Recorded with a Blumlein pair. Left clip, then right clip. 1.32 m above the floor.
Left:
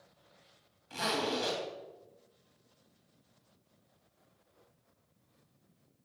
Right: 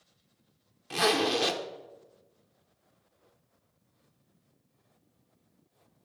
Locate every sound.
0.9 s a zipper: 45° right, 1.0 m